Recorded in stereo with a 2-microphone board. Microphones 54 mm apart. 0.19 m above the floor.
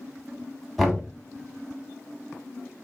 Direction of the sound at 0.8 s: Centre (ahead or behind).